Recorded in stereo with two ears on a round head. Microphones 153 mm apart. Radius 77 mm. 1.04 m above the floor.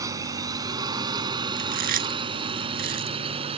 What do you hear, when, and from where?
0.0 s a drone: 20° right (ahead or behind); by 3.6 s 35° right (ahead or behind)
1.6 s chewing: 50° right (ahead or behind)